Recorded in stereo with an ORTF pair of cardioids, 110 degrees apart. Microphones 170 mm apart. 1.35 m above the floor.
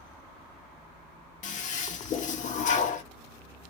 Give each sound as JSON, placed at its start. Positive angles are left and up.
{"t": 1.4, "sound": "a toilet flushing", "azimuth_deg": 45, "distance_m": 0.8}